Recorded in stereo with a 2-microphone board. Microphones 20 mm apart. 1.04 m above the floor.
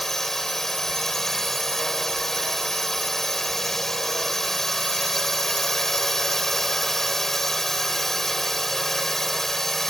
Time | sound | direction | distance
0.0 | a drone | 20° left (ahead or behind) | ?